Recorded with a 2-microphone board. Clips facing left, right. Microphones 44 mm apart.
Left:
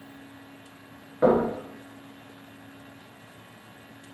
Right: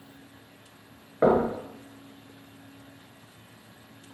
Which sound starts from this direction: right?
Knocking, at 1.2 s.